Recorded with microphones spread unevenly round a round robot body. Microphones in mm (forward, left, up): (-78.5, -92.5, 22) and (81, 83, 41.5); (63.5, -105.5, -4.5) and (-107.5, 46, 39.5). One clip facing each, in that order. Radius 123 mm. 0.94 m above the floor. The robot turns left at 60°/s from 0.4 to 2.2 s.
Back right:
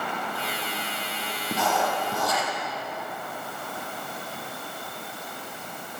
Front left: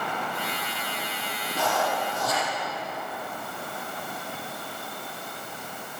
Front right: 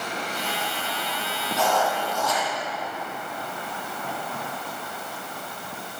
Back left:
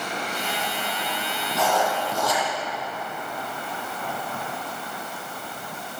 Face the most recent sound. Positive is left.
turn(degrees=-170)